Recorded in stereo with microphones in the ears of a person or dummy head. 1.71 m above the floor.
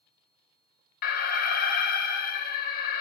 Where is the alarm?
50° left (ahead or behind), 0.8 m.